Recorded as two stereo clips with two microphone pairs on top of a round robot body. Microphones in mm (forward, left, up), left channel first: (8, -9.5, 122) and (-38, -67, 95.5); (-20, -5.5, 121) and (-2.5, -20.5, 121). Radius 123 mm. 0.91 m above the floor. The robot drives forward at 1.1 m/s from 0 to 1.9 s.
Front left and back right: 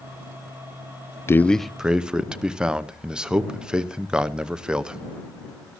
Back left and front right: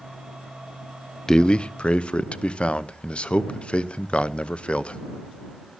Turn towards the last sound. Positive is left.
turn(degrees=170)